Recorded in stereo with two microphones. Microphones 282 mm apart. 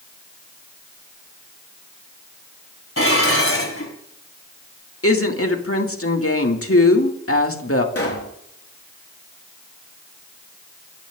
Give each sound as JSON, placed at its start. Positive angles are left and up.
{"t": 3.0, "sound": "dishes clattering", "side_deg": 50, "distance_m": 4.0}
{"t": 5.0, "sound": "a woman speaking", "side_deg": 50, "distance_m": 2.0}
{"t": 8.0, "sound": "a pop", "side_deg": 55, "distance_m": 4.0}